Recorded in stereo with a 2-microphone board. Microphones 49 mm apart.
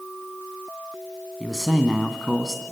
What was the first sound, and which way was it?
A man speaking, centre (ahead or behind).